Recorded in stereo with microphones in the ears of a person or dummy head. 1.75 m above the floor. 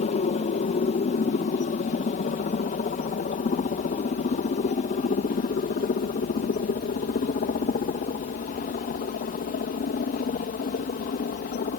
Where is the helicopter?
35° left (ahead or behind); by 11.8 s 40° left (ahead or behind).